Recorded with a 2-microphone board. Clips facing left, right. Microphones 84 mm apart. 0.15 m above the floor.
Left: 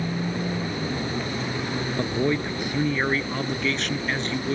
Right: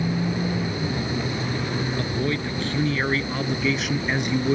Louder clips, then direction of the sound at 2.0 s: Left 2 dB; 20° left (ahead or behind).